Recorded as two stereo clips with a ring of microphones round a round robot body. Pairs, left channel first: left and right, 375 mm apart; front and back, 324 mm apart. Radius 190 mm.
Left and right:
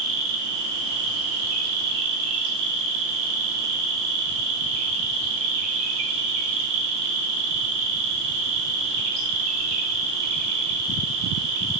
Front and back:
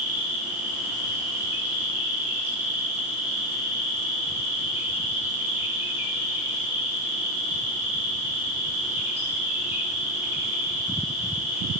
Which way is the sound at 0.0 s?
95° right.